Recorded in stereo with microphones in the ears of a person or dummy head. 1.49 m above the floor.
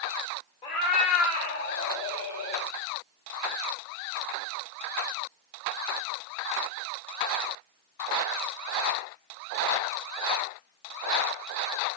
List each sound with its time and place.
0.6 s a cat meowing: 25° left (ahead or behind), 1.0 m; by 2.7 s 70° left (ahead or behind), 2 m